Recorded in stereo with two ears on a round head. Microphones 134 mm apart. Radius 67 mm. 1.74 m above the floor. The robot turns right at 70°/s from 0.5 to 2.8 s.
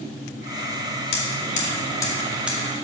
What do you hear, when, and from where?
1.1 s hammering: 70° left (ahead or behind), 2.5 m; by 2.6 s 15° right (ahead or behind), 2.5 m